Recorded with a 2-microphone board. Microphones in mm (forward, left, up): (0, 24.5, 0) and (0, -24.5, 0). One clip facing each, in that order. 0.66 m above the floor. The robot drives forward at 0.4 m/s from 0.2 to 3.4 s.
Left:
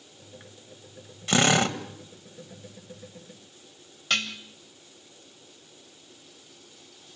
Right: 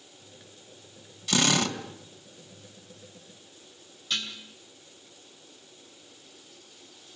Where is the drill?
35° left (ahead or behind), 2 m.